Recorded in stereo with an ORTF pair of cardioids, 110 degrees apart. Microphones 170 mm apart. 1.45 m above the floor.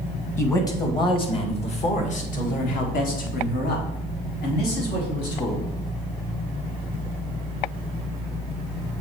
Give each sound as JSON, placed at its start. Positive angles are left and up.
{"t": 0.4, "sound": "a man speaking", "azimuth_deg": 15, "distance_m": 1.5}